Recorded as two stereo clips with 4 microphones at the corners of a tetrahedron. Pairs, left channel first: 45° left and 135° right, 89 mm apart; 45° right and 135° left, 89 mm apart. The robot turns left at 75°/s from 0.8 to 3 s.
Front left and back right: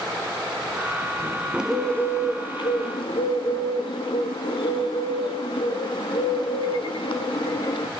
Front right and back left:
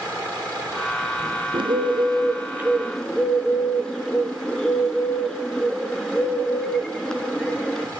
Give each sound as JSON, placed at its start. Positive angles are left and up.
{"t": 1.5, "sound": "a bird", "azimuth_deg": 150, "distance_m": 0.6}